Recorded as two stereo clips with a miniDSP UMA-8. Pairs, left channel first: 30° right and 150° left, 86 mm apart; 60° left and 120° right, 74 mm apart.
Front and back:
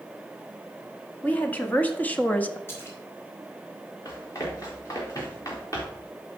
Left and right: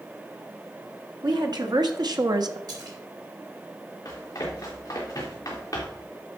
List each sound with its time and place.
1.2 s a woman speaking: 100° right, 1.8 m
2.7 s a splash: 90° right, 3 m
4.0 s running footsteps: 15° left, 5 m